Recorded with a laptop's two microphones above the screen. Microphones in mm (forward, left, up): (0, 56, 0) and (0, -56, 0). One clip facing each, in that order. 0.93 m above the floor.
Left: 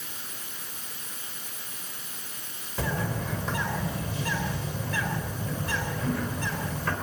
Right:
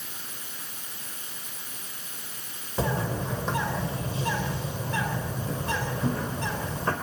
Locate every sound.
2.8 s a bird: 25° right (ahead or behind), 3.5 m